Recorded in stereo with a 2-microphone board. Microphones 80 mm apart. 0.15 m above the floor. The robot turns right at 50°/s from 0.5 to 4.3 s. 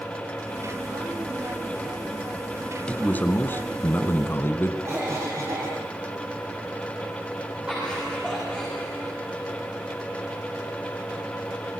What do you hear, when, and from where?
2.9 s a man speaking: 15° left (ahead or behind), 1.7 m; by 4.7 s 30° left (ahead or behind), 1.7 m
4.8 s a cough: 35° right (ahead or behind), 3 m
7.7 s laughter: 15° right (ahead or behind), 7 m